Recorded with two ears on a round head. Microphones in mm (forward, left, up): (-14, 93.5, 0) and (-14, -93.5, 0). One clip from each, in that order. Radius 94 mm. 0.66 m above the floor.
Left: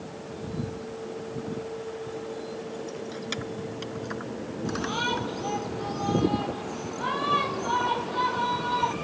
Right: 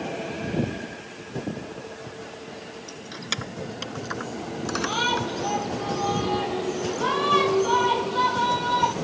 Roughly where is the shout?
Right.